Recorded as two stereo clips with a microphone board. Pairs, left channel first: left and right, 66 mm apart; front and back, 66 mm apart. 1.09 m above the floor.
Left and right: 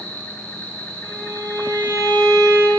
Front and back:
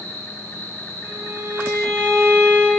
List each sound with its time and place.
0.0 s an insect: 25° left, 1.9 m
1.0 s a violin: 135° right, 3 m